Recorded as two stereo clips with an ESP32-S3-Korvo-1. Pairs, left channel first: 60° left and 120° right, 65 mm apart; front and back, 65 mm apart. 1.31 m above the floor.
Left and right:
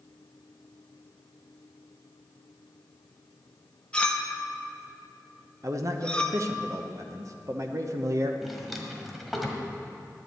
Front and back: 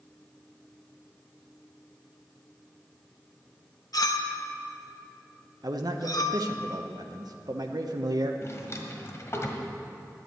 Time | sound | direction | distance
3.9 | a clink | 10° right | 1.0 m
5.6 | a man speaking | 160° right | 1.0 m
8.4 | a drawer | 30° right | 1.5 m